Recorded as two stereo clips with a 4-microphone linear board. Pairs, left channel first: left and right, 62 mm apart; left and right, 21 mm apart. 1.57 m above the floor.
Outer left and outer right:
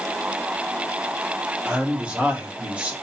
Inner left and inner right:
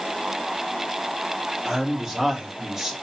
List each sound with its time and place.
1.6 s a man speaking: 20° right (ahead or behind), 1.8 m